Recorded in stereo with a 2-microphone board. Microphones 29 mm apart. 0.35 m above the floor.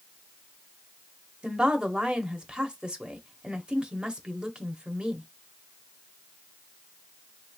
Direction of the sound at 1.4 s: 40° right (ahead or behind).